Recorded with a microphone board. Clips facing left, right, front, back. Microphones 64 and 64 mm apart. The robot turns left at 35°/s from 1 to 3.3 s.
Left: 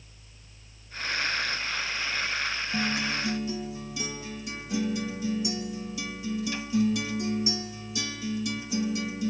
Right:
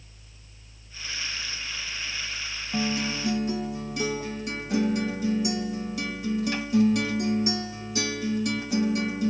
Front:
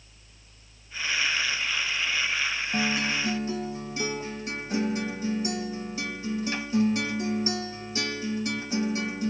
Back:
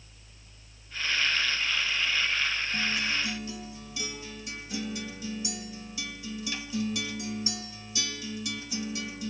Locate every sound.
2.7 s a guitar: 35° right, 0.9 m; by 9.3 s 55° right, 0.9 m